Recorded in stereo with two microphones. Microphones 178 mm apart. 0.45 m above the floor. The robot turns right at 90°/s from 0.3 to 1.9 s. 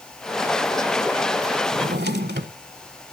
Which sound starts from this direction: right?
A drawer, at 1.7 s.